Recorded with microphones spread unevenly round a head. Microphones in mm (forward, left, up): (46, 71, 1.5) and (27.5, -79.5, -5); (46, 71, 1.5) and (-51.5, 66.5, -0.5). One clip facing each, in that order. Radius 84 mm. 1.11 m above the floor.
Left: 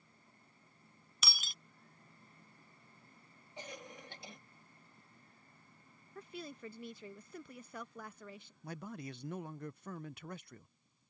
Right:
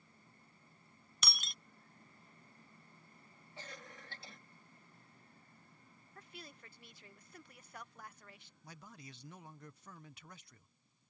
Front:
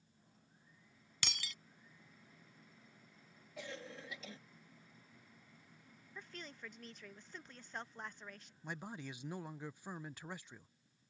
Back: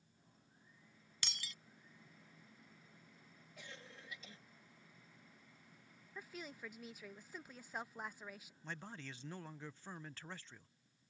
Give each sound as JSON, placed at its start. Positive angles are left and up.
{"t": 1.2, "sound": "breaking glass", "azimuth_deg": -5}
{"t": 3.6, "sound": "a cough", "azimuth_deg": 10}
{"t": 6.2, "sound": "a woman speaking", "azimuth_deg": 100}
{"t": 8.6, "sound": "a man speaking", "azimuth_deg": 75}